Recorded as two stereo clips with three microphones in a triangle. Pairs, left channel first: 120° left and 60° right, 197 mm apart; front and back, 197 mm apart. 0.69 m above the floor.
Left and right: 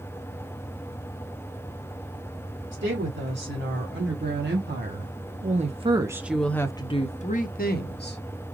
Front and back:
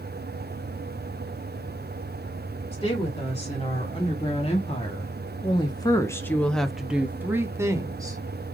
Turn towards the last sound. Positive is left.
turn(degrees=110)